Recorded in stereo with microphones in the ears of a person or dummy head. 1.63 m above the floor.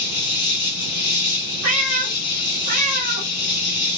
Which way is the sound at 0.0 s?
55° left (ahead or behind).